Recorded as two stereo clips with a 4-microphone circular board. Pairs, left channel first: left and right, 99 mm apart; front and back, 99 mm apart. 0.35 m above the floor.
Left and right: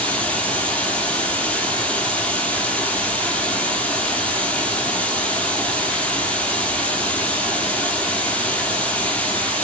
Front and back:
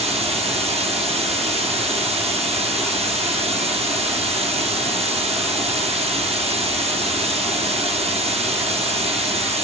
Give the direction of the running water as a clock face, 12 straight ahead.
6 o'clock.